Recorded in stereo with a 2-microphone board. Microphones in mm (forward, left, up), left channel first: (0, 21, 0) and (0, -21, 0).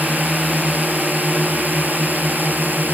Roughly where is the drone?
Right.